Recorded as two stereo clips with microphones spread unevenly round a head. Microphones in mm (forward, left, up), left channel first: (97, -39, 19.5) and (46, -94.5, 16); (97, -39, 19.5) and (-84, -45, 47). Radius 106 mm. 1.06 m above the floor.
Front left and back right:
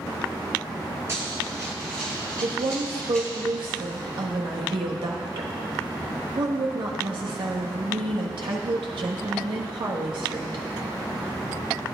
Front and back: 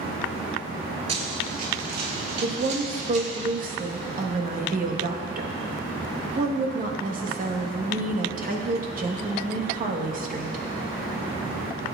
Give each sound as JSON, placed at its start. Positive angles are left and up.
{"t": 1.1, "sound": "running footsteps", "azimuth_deg": -175, "distance_m": 1.2}
{"t": 2.4, "sound": "a woman speaking", "azimuth_deg": -135, "distance_m": 1.2}